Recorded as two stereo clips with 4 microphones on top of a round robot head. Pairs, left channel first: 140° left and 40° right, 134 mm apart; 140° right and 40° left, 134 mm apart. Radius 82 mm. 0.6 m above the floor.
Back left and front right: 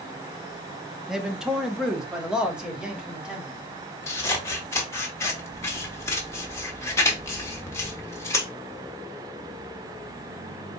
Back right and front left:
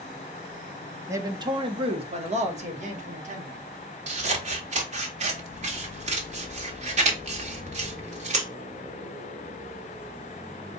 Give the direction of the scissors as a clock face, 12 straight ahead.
10 o'clock.